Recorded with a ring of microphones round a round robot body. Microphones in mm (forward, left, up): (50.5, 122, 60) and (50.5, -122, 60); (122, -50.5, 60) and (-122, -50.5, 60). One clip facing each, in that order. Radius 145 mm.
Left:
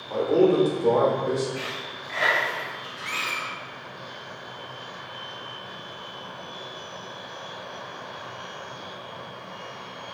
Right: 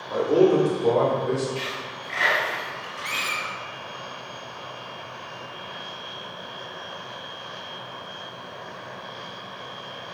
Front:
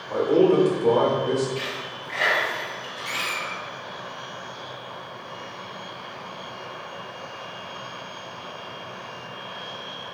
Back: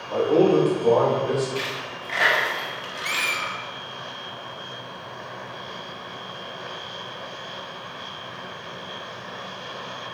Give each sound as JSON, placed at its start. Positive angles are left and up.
{"t": 0.1, "sound": "a man speaking", "azimuth_deg": -35, "distance_m": 0.9}
{"t": 1.6, "sound": "a dropped coin", "azimuth_deg": -170, "distance_m": 1.0}
{"t": 3.0, "sound": "a squeak", "azimuth_deg": -130, "distance_m": 0.8}